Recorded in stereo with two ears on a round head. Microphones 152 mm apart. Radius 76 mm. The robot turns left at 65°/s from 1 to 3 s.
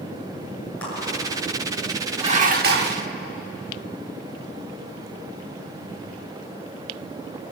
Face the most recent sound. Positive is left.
turn(degrees=-85)